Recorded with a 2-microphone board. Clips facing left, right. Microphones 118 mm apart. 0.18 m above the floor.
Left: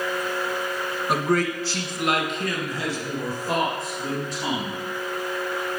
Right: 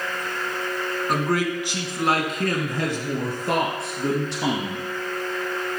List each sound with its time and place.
1.1 s a man speaking: 5° left (ahead or behind), 2.0 m; by 4.8 s 75° right (ahead or behind), 5 m